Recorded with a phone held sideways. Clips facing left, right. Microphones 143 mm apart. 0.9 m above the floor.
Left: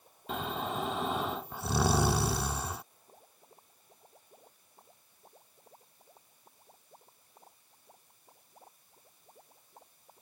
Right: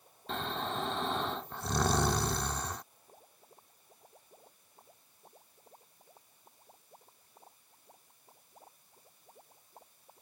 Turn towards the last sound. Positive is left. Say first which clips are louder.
# left 1 dB
turn(degrees=5)  # may be behind; listen again after turning